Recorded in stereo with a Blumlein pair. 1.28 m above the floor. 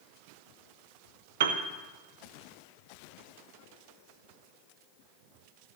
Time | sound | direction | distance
1.4 | a piano | 55° right | 0.8 m